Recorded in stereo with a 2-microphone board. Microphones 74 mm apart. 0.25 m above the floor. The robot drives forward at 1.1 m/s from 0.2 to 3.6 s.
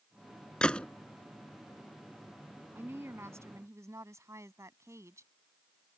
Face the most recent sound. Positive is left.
turn(degrees=-40)  # may be behind; listen again after turning